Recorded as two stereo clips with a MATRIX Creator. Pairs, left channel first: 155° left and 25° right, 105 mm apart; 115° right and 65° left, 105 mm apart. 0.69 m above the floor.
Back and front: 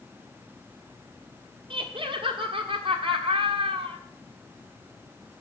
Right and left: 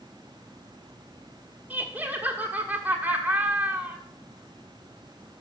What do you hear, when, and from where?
1.7 s laughter: 10° right, 1.4 m